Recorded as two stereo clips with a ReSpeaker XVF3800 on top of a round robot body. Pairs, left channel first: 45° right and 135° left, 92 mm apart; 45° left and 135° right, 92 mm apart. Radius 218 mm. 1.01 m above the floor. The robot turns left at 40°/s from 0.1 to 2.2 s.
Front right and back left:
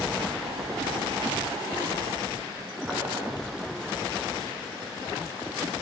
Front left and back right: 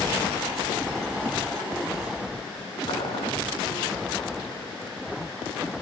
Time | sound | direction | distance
2.9 | boiling | 55° left | 5.5 m